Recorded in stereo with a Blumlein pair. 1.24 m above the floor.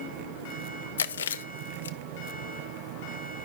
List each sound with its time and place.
1.0 s chewing: 65° left, 0.7 m